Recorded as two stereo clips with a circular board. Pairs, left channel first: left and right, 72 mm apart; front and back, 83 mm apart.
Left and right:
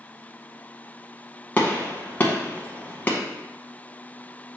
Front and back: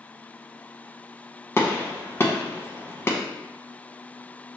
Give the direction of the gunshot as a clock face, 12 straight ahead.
11 o'clock.